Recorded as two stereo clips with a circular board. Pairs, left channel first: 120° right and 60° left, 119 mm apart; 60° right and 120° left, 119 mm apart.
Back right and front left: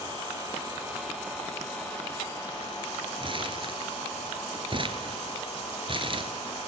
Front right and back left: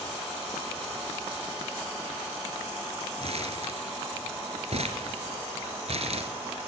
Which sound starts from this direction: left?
Crumpling, at 3.2 s.